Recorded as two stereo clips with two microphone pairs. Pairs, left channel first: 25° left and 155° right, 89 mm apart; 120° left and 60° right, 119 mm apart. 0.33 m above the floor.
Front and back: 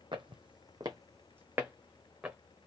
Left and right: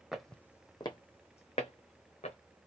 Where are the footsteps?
145° right, 0.7 m; by 2.4 s 120° left, 1.4 m.